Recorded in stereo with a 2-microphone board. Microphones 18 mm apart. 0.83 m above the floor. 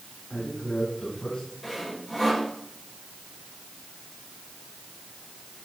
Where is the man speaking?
70° left (ahead or behind), 7 m; by 1.5 s 55° left (ahead or behind), 7 m.